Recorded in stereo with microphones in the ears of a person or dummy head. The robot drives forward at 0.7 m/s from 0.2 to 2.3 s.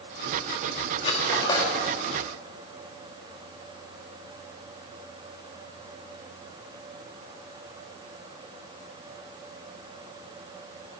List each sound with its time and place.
1.0 s cutlery clinking: 35° left (ahead or behind), 1.2 m; by 1.7 s 25° left (ahead or behind), 1.5 m